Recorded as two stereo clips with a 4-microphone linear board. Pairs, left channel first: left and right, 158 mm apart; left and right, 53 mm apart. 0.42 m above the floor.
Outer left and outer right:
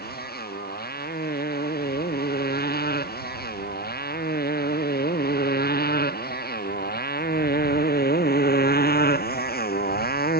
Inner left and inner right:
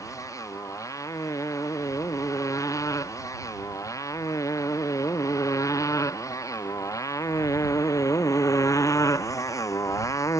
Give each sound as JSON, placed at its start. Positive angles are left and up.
{"t": 0.0, "sound": "a motorcycle", "side_deg": 85}